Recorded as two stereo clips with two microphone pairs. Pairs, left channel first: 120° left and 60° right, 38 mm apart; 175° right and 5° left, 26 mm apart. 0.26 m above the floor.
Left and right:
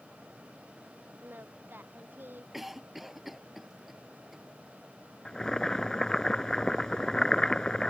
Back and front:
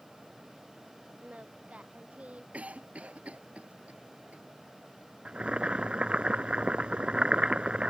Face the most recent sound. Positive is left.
turn(degrees=50)